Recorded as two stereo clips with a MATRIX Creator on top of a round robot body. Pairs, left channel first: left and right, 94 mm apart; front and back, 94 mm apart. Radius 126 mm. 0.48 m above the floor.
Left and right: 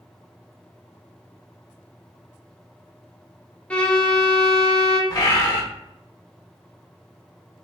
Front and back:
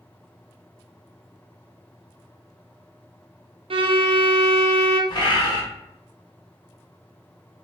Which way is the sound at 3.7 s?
170° left.